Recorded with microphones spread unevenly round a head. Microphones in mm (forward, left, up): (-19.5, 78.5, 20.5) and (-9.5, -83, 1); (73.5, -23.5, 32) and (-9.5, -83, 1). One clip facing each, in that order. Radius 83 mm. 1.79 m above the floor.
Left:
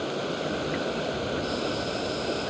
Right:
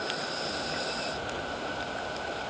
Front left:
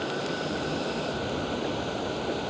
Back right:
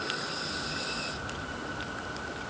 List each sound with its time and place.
0.0 s running water: 50° left